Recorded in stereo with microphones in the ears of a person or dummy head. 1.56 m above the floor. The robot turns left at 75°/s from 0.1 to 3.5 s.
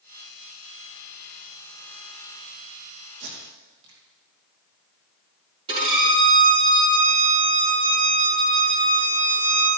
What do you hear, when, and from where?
3.2 s tape being pulled: 80° right, 3 m; by 4.0 s 75° right (ahead or behind), 3 m
5.7 s a violin: 30° right (ahead or behind), 5 m